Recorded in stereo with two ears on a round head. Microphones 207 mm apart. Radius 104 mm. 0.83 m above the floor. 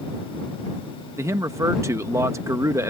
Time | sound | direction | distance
1.2 | a man speaking | 10° right (ahead or behind) | ?